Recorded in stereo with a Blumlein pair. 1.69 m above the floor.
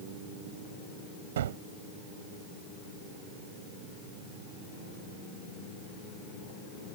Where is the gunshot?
60° right.